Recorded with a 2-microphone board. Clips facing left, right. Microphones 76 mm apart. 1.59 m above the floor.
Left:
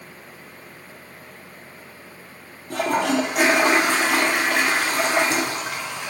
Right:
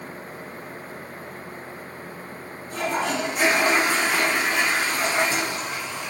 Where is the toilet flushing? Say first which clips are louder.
Left 4 dB; 70° left (ahead or behind), 0.5 m.